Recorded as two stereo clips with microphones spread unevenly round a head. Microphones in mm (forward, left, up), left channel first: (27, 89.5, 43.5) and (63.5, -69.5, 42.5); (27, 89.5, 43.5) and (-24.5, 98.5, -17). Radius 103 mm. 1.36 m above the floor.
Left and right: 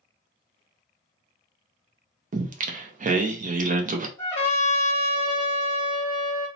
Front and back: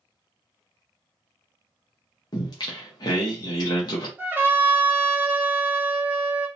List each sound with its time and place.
2.3 s singing: 35° right, 0.6 m
4.2 s a trumpet: 155° left, 1.1 m